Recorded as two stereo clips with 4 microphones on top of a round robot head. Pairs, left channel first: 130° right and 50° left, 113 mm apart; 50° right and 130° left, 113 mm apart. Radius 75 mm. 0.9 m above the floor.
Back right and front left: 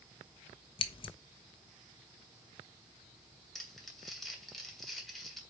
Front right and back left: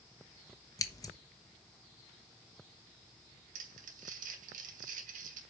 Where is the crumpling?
140° left, 2.5 m.